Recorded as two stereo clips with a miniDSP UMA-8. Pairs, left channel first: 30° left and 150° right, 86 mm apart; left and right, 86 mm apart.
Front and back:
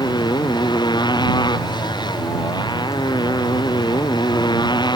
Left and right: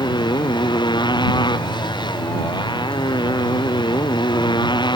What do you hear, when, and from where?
0.0 s a motorcycle: 60° left